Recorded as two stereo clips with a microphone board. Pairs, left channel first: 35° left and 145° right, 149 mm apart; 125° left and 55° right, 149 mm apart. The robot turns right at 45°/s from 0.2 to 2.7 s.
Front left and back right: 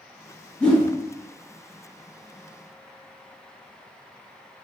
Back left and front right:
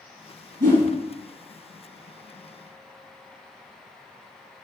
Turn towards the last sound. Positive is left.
turn(degrees=45)